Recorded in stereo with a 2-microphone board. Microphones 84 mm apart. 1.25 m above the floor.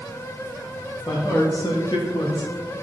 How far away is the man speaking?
About 1.4 m.